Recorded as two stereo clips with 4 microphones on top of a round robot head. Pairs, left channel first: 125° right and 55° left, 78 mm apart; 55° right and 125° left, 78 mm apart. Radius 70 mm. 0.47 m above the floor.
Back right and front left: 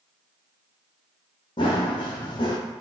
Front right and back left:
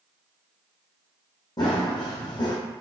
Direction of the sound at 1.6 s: 95° right.